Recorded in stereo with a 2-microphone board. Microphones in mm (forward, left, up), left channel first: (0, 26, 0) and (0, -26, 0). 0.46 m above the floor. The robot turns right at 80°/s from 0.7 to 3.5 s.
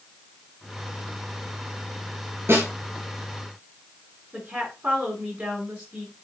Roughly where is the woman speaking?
Right.